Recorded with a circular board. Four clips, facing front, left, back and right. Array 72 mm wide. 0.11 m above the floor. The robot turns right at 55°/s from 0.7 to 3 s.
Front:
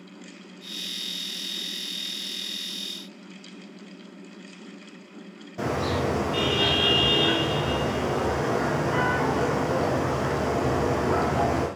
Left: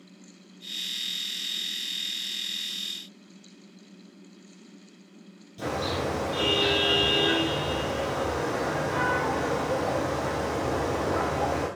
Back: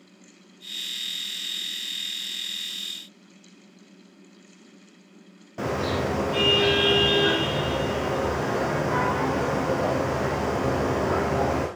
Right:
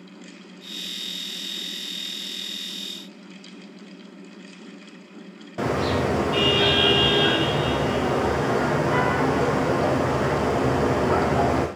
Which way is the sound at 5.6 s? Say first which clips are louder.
Right 6 dB, even; 105° right.